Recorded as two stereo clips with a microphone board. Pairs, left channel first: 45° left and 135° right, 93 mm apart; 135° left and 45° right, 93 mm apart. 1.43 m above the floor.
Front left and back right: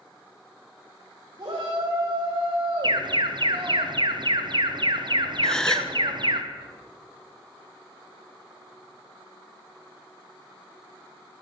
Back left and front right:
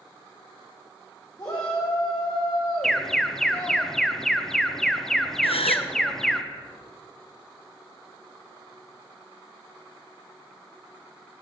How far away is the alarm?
About 1.0 m.